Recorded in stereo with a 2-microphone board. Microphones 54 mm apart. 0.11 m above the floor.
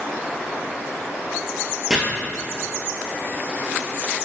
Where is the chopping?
10° right (ahead or behind), 1.1 m.